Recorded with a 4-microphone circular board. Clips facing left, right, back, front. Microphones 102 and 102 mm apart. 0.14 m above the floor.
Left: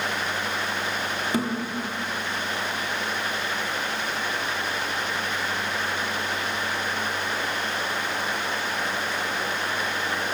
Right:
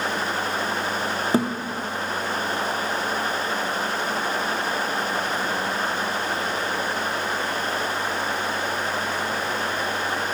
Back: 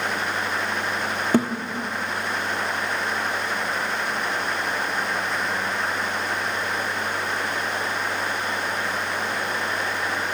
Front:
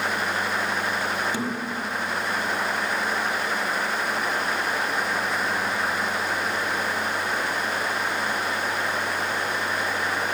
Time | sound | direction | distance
1.3 | a thud | 145° right | 0.9 m